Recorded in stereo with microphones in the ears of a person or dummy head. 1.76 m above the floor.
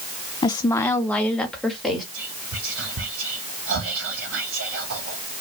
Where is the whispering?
60° right (ahead or behind), 0.9 m.